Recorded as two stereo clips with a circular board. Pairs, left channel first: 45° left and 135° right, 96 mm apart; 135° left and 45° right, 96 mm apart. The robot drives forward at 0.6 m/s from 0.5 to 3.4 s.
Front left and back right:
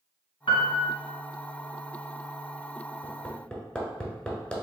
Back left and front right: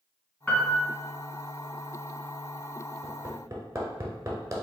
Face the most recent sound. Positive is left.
turn(degrees=-15)